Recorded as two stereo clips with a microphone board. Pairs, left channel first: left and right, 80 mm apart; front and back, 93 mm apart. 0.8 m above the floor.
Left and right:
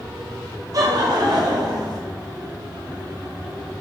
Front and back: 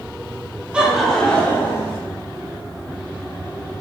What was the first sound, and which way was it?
Laughter, 105° right.